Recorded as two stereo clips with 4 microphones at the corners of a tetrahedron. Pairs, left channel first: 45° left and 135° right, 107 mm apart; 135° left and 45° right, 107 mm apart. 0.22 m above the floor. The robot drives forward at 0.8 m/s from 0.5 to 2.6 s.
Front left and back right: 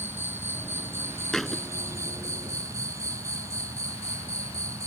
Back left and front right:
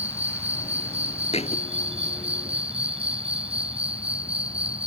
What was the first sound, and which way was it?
An insect, 65° right.